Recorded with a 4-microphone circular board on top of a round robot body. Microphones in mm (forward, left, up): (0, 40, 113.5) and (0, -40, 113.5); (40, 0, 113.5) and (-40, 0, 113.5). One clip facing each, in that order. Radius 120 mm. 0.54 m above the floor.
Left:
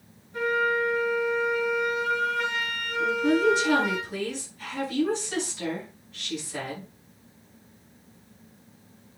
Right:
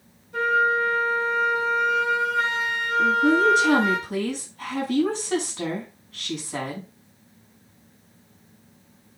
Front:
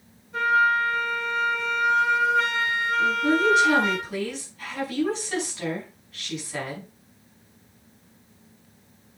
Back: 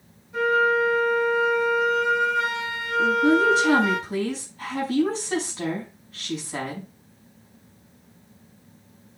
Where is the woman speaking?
120° right, 5.5 m.